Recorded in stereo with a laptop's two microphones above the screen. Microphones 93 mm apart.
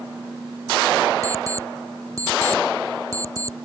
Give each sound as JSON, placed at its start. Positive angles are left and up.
{"t": 1.2, "sound": "an alarm clock", "side_deg": -35}